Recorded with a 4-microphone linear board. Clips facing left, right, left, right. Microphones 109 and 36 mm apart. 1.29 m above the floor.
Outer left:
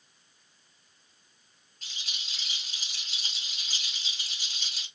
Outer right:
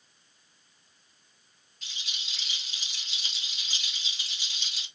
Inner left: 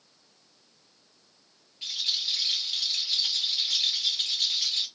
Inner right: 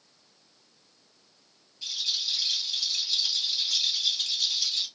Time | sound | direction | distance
1.8 | a rattle | 50° left (ahead or behind) | 1.8 m